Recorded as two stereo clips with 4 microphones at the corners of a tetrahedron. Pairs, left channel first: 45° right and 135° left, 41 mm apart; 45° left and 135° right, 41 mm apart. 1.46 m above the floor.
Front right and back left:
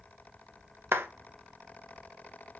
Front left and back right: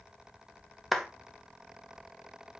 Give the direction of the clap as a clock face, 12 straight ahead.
8 o'clock.